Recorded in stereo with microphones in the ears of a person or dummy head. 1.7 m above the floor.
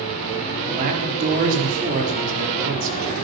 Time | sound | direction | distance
0.7 | a man speaking | 45° right (ahead or behind) | 4.5 m